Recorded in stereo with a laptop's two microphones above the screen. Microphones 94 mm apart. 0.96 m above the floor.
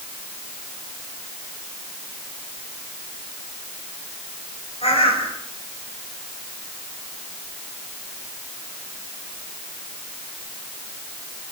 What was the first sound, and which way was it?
A bird, 80° left.